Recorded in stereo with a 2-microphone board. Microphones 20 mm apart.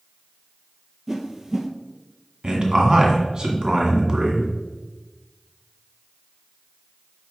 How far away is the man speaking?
About 1.9 m.